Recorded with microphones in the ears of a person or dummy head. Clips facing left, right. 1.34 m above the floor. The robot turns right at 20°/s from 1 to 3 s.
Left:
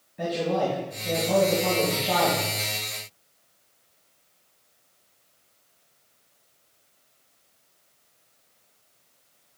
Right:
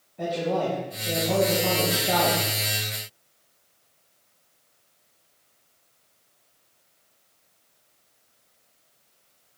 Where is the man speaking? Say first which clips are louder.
Even; 5° left (ahead or behind), 2.5 m; by 2.4 s 20° right (ahead or behind), 2.5 m.